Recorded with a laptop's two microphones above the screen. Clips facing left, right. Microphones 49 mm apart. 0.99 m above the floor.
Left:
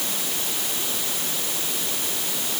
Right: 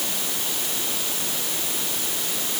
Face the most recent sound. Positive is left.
No sound to turn to.